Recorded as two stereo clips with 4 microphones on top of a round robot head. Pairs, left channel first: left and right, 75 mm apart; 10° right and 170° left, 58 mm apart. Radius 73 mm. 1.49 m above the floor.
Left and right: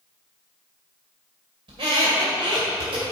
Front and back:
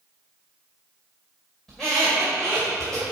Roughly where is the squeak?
Right.